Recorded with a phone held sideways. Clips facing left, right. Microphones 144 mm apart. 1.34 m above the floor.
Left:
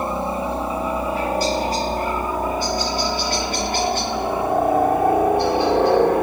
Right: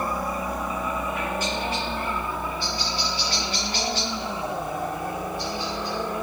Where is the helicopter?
25° left (ahead or behind); by 6.2 s 60° left (ahead or behind).